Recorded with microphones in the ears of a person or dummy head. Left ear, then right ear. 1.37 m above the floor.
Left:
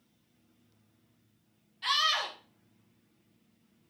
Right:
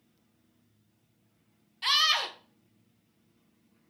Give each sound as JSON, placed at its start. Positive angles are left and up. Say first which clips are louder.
{"t": 1.8, "sound": "a scream", "louder": "right 3 dB", "side_deg": -20, "distance_m": 1.6}